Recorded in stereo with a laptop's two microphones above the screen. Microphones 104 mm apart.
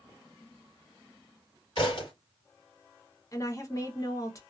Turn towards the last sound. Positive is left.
turn(degrees=30)  # may be behind; listen again after turning